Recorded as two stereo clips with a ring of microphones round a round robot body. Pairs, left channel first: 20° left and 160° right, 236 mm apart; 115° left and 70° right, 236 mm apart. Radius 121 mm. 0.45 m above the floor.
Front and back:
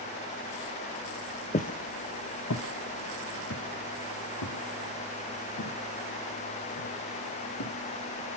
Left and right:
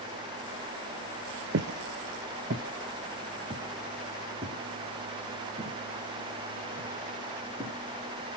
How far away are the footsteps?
About 0.6 m.